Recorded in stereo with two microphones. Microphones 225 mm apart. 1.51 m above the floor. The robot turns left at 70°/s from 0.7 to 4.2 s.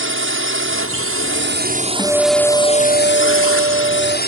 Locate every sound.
0.0 s a drone: 70° right; by 4.3 s 45° left
2.0 s a guitar: 20° left; by 4.2 s 135° right